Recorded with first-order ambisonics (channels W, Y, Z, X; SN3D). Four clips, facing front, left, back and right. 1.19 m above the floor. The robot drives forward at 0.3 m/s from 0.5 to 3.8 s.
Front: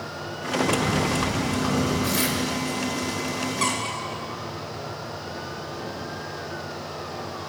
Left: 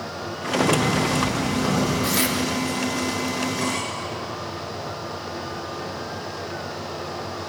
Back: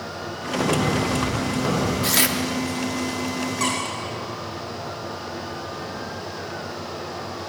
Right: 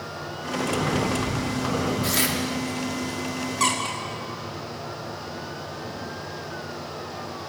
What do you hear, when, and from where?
0.6 s breathing: 150° left, 7.5 m
2.0 s tearing paper: 175° right, 2 m
3.6 s a squeak: 120° right, 6.5 m